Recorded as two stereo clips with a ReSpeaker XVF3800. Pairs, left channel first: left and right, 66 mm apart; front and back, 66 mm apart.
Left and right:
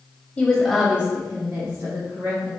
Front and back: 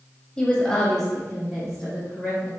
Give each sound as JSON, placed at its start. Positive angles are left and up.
{"t": 0.4, "sound": "a woman speaking", "azimuth_deg": 55, "distance_m": 1.1}